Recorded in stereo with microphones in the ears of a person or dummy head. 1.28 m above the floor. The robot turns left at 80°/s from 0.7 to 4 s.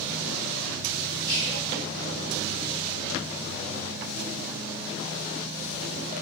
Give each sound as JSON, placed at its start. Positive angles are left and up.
{"t": 1.2, "sound": "whispering", "azimuth_deg": -155, "distance_m": 0.7}